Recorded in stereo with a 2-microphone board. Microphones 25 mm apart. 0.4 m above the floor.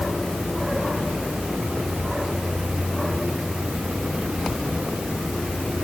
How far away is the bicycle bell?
No bicycle bell in this recording.